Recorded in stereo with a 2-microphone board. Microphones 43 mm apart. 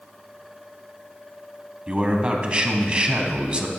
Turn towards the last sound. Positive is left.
turn(degrees=-25)  # may be behind; listen again after turning